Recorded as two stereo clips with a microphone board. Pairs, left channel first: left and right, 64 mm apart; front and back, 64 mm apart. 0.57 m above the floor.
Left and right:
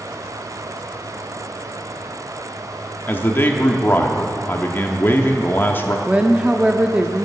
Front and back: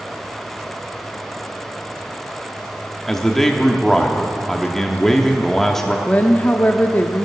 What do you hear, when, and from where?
3.1 s a man speaking: 80° left, 1.0 m
6.1 s a woman speaking: 35° right, 0.6 m